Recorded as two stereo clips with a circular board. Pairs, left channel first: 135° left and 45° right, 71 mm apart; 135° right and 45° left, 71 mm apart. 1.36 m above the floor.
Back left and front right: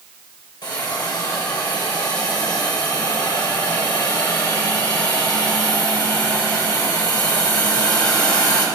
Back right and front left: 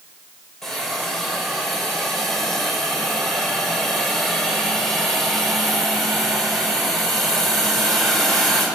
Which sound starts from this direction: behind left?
A hiss, at 0.6 s.